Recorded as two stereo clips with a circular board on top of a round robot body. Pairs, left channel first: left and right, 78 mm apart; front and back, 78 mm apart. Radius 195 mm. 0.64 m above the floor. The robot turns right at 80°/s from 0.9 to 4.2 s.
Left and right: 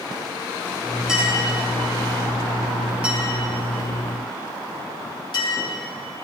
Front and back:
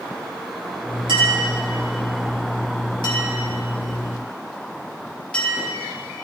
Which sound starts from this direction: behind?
A clink, at 1.1 s.